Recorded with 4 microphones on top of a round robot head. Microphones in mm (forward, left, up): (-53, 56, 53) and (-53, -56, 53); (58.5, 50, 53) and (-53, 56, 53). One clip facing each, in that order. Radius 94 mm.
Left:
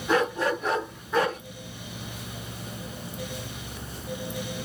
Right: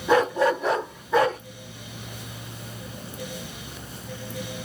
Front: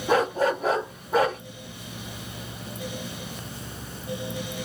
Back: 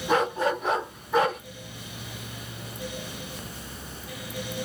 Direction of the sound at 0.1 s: 70° right.